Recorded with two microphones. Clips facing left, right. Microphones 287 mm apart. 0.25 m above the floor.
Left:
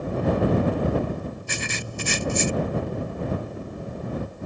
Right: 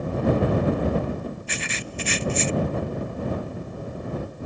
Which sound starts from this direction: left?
Writing, at 1.5 s.